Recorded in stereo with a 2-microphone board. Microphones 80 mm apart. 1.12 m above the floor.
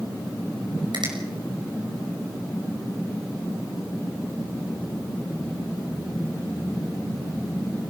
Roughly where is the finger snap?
Right.